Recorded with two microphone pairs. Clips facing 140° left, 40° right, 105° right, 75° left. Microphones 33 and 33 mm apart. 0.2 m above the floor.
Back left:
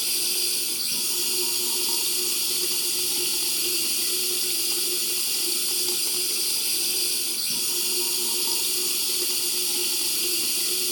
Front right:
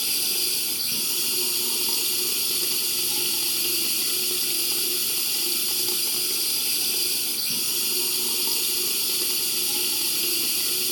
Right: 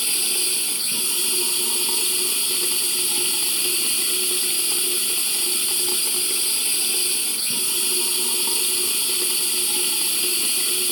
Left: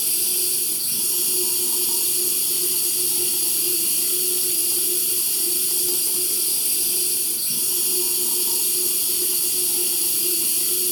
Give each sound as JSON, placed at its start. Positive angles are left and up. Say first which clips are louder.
{"t": 0.0, "sound": "running water", "louder": "front right 1 dB, right 4 dB", "azimuth_deg": -130, "distance_m": 1.0}